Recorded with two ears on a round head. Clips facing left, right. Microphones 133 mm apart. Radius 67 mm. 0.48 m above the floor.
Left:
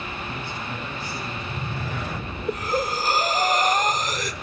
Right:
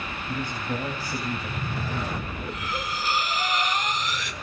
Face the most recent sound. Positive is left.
turn(degrees=35)  # may be behind; listen again after turning